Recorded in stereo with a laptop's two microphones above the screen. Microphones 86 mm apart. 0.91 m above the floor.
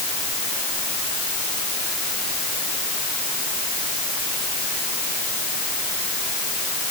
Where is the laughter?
No laughter in this recording.